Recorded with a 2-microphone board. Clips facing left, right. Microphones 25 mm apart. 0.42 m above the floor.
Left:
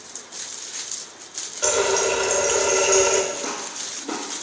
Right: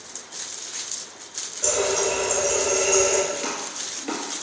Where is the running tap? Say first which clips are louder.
Left 3 dB; 50° left (ahead or behind), 0.6 m.